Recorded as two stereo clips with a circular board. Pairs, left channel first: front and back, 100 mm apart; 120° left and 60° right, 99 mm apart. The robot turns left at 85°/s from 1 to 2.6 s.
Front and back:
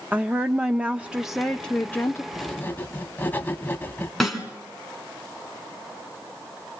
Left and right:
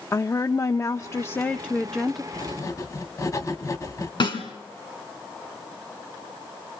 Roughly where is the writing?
Left.